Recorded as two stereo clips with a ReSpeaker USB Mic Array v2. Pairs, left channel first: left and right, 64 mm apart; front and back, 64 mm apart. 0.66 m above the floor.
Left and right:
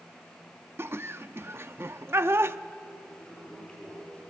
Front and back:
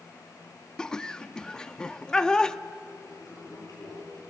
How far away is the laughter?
About 0.6 m.